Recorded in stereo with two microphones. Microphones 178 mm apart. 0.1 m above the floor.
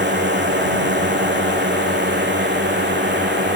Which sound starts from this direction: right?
A drone, at 0.0 s.